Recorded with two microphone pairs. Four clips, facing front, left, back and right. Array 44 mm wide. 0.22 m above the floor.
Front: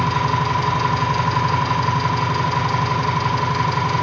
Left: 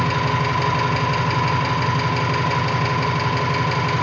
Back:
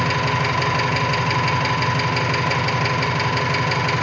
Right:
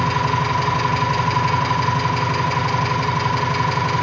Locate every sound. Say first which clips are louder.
0.0 s an engine running: right 1 dB, front 1 dB; 175° left, 2 m